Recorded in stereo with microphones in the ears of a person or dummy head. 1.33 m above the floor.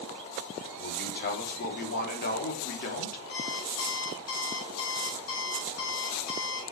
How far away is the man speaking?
About 2.5 m.